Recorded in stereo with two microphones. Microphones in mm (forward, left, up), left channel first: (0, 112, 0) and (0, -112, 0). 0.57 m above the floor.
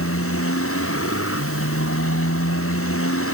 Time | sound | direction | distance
0.0 | a motorcycle | 90° left | ?